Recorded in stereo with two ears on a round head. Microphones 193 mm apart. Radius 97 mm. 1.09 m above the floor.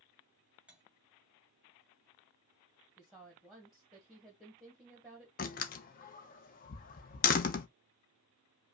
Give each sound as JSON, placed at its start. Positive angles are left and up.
{"t": 0.7, "sound": "cutlery clinking", "side_deg": -5, "distance_m": 1.3}
{"t": 3.0, "sound": "a woman speaking", "side_deg": 0, "distance_m": 1.1}
{"t": 5.4, "sound": "a door slam", "side_deg": 40, "distance_m": 0.6}